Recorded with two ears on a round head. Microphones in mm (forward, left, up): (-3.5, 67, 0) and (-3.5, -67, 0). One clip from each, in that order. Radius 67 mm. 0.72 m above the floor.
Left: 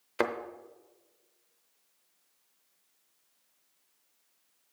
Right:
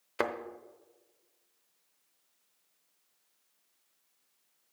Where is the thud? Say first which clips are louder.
Left 2 dB; centre (ahead or behind), 0.6 m.